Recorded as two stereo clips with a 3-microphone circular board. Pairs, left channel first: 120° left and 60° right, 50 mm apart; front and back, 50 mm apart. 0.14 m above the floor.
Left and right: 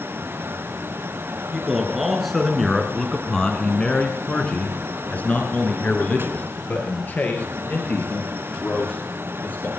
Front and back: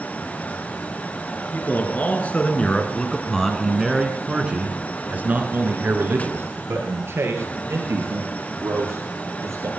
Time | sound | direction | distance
1.5 | a man speaking | 20° left | 2.5 m